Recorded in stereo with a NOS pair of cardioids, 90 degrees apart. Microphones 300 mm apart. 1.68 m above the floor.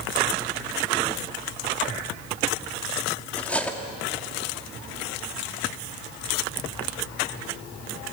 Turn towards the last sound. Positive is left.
turn(degrees=5)